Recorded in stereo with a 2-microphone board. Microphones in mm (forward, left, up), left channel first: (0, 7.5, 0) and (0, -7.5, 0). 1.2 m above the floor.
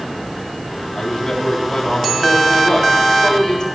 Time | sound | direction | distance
0.9 | a man speaking | 55° left (ahead or behind) | 3 m